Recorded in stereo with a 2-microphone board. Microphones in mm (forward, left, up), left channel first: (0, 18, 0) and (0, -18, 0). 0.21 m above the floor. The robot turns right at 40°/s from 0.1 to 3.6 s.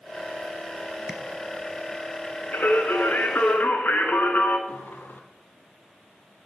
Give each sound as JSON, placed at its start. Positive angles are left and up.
{"t": 1.1, "sound": "tapping", "side_deg": -10, "distance_m": 1.2}
{"t": 2.5, "sound": "singing", "azimuth_deg": 75, "distance_m": 1.3}
{"t": 4.7, "sound": "a sliding door", "side_deg": 65, "distance_m": 1.1}